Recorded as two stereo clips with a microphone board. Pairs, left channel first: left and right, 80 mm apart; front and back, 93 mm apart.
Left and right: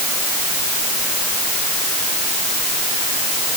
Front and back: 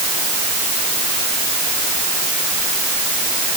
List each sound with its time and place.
Only background noise.